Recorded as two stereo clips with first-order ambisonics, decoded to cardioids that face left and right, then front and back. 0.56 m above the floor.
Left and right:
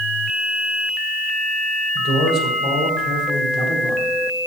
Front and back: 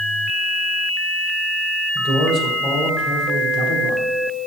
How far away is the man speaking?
About 2 m.